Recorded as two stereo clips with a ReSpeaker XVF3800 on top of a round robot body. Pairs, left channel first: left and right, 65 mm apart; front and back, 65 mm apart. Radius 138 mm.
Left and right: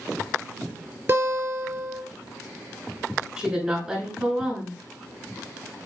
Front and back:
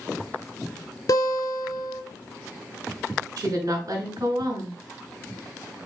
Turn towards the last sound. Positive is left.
turn(degrees=-165)